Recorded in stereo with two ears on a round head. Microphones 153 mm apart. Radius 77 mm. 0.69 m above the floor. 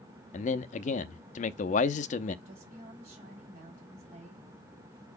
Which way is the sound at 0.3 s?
45° left (ahead or behind).